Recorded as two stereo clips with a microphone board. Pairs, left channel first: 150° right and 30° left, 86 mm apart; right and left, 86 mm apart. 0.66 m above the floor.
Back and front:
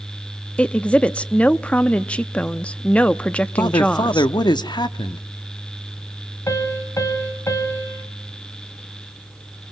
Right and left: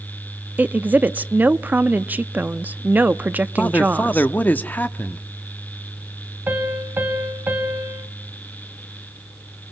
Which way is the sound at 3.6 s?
155° right.